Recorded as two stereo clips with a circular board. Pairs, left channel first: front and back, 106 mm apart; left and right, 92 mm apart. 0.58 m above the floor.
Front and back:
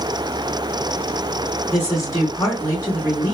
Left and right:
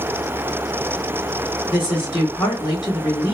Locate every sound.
1.7 s a woman speaking: 60° left, 1.6 m